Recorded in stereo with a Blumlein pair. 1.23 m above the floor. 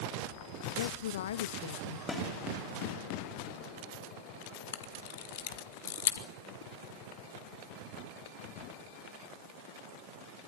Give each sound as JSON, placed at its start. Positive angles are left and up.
{"t": 0.8, "sound": "a woman speaking", "azimuth_deg": 60, "distance_m": 0.7}
{"t": 2.1, "sound": "a snare drum", "azimuth_deg": 10, "distance_m": 4.0}
{"t": 4.7, "sound": "a camera shutter", "azimuth_deg": 55, "distance_m": 2.0}